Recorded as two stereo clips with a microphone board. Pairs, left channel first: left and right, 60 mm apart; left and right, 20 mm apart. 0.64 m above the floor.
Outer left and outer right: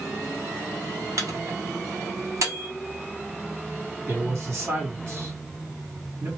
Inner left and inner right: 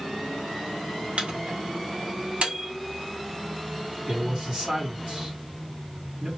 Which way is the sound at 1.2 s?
60° right (ahead or behind).